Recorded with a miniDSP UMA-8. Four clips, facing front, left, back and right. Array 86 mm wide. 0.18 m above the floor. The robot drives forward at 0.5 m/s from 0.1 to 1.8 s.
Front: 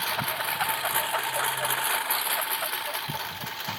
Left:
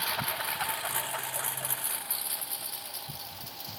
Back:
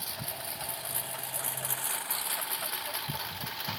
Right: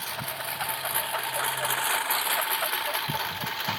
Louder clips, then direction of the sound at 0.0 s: Left 1 dB, front 12 dB; 10° left.